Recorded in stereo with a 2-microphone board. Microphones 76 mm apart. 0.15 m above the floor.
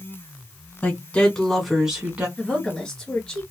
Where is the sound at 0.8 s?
25° left (ahead or behind), 1.3 m; by 2.3 s 20° right (ahead or behind), 1.3 m.